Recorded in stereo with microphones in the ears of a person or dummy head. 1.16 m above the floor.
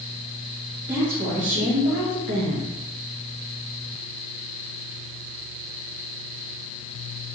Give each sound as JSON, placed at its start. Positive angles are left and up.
{"t": 0.9, "sound": "a woman speaking", "side_deg": -35, "distance_m": 1.8}